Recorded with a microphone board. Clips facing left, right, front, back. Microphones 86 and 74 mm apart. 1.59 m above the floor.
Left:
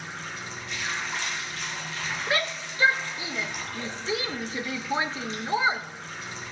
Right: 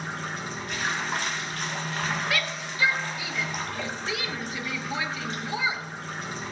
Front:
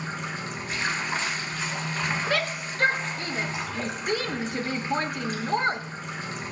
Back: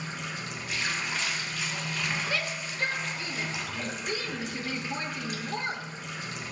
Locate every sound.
0.0 s running water: 55° right, 1.4 m
2.3 s a shout: 30° left, 0.9 m